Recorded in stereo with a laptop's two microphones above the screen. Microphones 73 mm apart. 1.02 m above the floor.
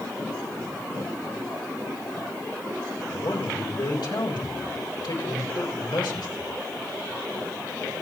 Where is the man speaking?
80° left, 3 m.